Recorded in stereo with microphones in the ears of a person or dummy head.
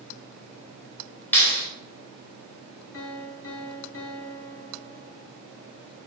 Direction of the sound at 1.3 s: 5° left (ahead or behind).